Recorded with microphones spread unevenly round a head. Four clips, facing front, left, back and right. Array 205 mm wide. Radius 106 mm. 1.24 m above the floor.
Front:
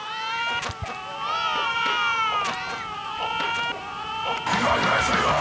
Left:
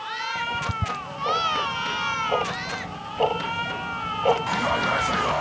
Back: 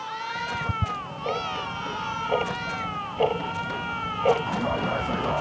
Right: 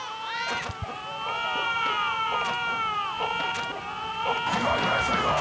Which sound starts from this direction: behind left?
Ticking, at 0.3 s.